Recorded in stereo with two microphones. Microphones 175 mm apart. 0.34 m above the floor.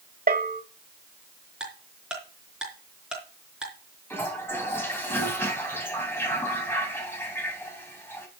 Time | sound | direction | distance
0.3 | a bell | 55° right (ahead or behind) | 1.3 m
1.6 | ticking | 5° right (ahead or behind) | 4.5 m
4.1 | a toilet flushing | 15° left (ahead or behind) | 3 m